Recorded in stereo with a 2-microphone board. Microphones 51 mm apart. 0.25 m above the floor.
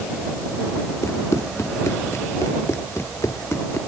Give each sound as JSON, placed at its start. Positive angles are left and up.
{"t": 1.0, "sound": "running footsteps", "side_deg": 70}